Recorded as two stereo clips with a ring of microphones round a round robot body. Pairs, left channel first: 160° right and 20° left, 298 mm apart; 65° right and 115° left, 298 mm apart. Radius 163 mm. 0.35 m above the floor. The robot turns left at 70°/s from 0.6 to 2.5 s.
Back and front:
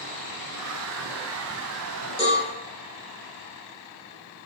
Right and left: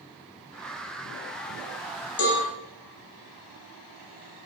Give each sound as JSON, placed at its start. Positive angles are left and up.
{"t": 2.2, "sound": "a cowbell", "azimuth_deg": -90, "distance_m": 0.9}